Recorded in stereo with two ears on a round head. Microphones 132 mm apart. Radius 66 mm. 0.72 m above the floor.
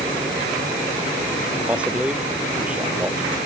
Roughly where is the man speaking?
Centre.